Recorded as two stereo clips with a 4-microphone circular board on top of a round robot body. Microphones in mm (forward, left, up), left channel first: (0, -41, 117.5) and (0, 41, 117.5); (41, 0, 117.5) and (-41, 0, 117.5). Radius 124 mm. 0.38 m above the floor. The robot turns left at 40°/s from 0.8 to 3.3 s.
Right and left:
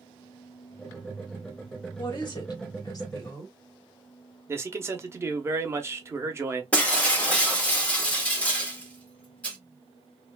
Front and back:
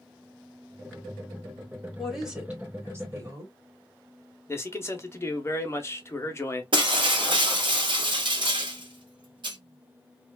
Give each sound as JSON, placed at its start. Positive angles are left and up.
{"t": 2.0, "sound": "a woman speaking", "azimuth_deg": -85, "distance_m": 1.9}
{"t": 4.5, "sound": "a man speaking", "azimuth_deg": 45, "distance_m": 1.0}
{"t": 6.7, "sound": "breaking glass", "azimuth_deg": -165, "distance_m": 1.5}